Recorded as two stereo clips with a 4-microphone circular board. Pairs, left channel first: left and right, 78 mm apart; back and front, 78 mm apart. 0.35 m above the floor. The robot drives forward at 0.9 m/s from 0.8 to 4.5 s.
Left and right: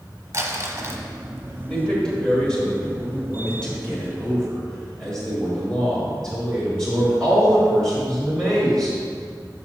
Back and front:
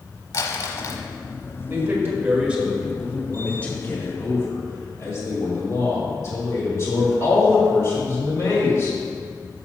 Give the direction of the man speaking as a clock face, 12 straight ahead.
11 o'clock.